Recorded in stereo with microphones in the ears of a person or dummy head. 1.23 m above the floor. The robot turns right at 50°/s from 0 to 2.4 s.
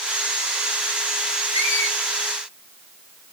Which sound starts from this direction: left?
A squeak, at 1.5 s.